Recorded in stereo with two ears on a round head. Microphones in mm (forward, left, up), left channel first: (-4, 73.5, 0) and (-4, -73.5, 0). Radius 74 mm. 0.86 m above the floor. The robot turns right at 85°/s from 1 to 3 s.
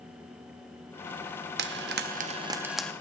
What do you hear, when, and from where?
1.6 s frying: 70° right (ahead or behind), 0.8 m; by 2.9 s 10° left (ahead or behind), 0.8 m